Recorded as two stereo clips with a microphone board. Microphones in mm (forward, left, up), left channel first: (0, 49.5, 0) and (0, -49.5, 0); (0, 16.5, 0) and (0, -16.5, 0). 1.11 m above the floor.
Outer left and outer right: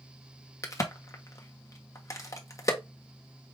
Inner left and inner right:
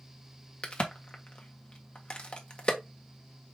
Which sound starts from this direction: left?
A crack, at 0.6 s.